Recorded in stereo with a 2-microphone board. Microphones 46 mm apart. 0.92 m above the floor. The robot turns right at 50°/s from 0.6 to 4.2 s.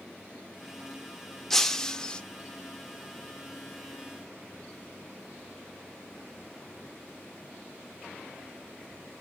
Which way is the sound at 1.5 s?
10° left (ahead or behind).